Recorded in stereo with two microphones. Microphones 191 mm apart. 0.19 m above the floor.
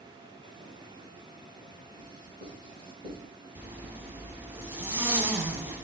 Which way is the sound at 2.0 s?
50° right (ahead or behind).